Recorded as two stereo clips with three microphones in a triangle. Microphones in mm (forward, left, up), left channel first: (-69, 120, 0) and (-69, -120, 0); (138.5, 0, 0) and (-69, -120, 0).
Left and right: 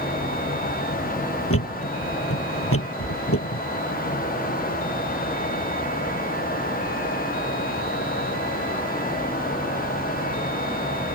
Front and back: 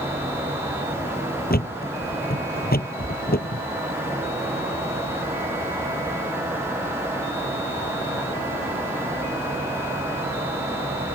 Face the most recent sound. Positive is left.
turn(degrees=80)